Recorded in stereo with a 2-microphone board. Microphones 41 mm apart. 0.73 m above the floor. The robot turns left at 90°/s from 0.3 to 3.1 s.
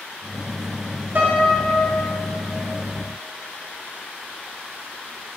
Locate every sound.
1.1 s a piano: 115° right, 1.3 m; by 2.0 s 165° left, 1.3 m